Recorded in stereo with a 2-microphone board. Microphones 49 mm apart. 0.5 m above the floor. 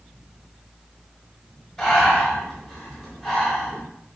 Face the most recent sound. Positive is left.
turn(degrees=15)  # may be behind; listen again after turning